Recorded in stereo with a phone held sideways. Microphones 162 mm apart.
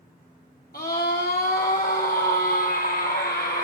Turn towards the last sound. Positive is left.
turn(degrees=70)  # may be behind; listen again after turning